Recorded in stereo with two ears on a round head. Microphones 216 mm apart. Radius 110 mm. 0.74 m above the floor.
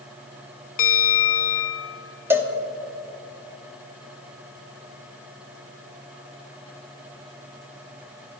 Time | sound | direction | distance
0.8 | a bell | 40° left (ahead or behind) | 0.9 m
2.3 | a cowbell | 10° right (ahead or behind) | 0.9 m